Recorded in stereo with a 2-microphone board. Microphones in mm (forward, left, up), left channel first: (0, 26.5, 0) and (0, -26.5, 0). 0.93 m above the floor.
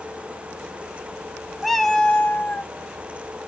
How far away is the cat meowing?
About 0.6 m.